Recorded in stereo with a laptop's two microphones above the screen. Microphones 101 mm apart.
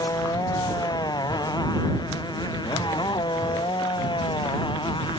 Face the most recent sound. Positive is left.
turn(degrees=60)  # may be behind; listen again after turning